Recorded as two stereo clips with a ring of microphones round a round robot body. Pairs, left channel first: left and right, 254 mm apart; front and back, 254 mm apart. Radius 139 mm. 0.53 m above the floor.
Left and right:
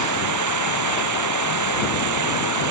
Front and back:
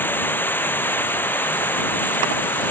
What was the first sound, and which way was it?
Running water, 80° right.